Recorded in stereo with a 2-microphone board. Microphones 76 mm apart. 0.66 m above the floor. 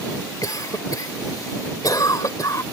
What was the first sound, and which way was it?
A cough, 55° left (ahead or behind).